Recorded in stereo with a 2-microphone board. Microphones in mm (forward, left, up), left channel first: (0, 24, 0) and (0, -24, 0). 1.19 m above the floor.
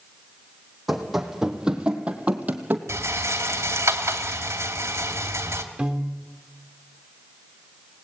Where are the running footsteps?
Centre (ahead or behind), 3 m; by 2.8 s 35° right (ahead or behind), 2.5 m.